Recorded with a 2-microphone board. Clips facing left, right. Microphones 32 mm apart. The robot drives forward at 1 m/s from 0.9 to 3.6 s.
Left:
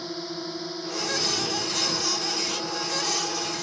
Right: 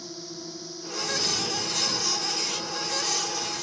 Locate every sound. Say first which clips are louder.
0.0 s a drone: left 6 dB; 40° left (ahead or behind); by 3.6 s 35° left (ahead or behind)